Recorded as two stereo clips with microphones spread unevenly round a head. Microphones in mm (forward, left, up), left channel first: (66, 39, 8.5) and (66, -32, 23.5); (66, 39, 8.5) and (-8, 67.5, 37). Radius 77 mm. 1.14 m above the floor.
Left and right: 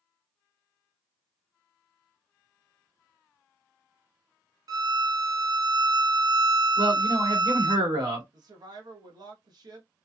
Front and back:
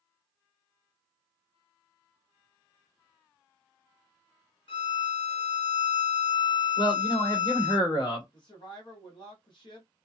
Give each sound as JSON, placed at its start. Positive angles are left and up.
{"t": 4.7, "sound": "a violin", "azimuth_deg": -50, "distance_m": 0.6}
{"t": 6.8, "sound": "a man speaking", "azimuth_deg": -70, "distance_m": 1.7}
{"t": 8.3, "sound": "a woman speaking", "azimuth_deg": -60, "distance_m": 1.1}